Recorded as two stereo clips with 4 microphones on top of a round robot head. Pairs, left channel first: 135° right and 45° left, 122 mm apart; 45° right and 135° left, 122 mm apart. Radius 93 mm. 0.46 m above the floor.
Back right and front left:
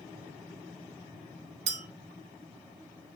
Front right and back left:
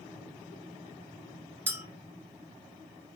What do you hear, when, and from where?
1.7 s a clink: 60° left, 0.6 m